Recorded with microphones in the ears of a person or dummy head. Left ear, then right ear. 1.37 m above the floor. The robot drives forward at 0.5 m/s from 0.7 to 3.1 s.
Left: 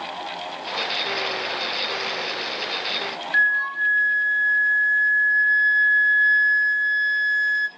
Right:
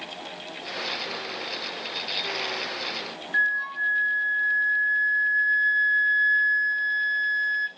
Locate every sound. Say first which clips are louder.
3.3 s a flute: left 4 dB; 25° left (ahead or behind), 0.7 m